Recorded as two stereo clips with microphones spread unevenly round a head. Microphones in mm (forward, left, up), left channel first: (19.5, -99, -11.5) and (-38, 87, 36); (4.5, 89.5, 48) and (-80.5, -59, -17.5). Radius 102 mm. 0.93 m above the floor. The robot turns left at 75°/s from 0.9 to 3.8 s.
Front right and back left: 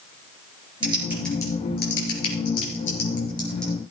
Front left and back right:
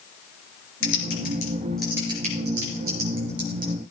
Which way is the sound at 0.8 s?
40° left.